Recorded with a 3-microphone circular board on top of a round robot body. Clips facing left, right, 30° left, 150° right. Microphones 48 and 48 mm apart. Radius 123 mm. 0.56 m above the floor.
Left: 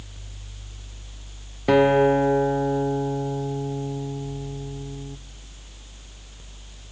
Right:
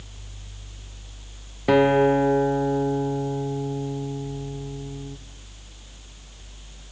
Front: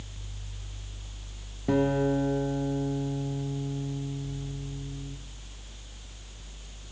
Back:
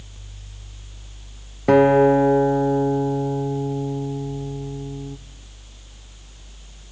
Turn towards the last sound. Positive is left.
turn(degrees=-175)